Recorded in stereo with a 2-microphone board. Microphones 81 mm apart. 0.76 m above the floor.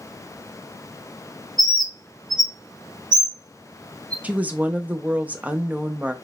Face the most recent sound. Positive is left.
turn(degrees=-20)  # may be behind; listen again after turning